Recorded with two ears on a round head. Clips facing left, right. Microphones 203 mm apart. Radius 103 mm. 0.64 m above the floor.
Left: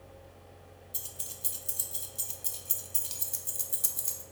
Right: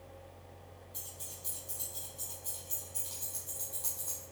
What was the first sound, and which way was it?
Keys jangling, 35° left (ahead or behind).